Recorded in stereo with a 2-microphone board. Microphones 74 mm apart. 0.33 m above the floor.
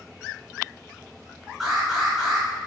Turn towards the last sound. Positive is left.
turn(degrees=-5)  # may be behind; listen again after turning